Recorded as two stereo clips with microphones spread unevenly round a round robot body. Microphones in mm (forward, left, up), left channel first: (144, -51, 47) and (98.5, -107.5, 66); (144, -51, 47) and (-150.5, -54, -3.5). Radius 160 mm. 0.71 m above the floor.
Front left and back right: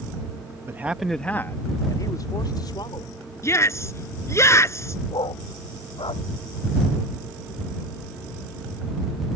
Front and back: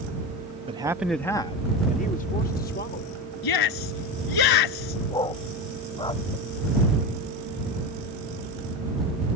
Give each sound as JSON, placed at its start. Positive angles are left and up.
{"t": 0.7, "sound": "a man speaking", "azimuth_deg": 180}
{"t": 3.4, "sound": "a shout", "azimuth_deg": 0}
{"t": 5.1, "sound": "a dog barking", "azimuth_deg": 80}